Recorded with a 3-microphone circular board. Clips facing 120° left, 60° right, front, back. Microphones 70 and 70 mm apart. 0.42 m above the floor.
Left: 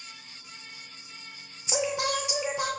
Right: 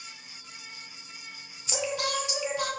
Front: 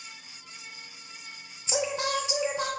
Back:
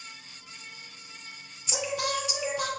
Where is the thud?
No thud in this recording.